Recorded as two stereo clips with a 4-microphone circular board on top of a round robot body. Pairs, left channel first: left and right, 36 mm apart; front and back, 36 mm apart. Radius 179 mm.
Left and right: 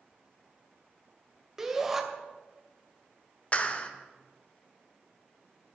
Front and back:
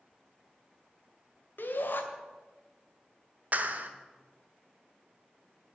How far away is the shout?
About 2.5 m.